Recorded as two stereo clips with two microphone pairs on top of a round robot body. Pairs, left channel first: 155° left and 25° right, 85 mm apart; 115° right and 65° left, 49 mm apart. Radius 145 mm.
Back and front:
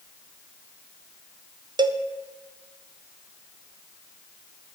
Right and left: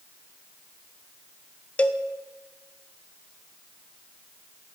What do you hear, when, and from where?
1.8 s a cowbell: 50° right, 0.6 m